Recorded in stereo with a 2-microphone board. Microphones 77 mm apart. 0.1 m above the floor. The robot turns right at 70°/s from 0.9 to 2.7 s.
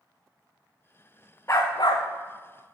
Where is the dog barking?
35° left (ahead or behind), 2.5 m; by 2.7 s 55° left (ahead or behind), 2.5 m.